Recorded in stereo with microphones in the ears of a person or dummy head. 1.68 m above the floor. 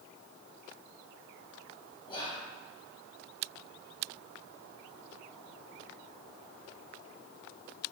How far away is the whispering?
About 0.5 m.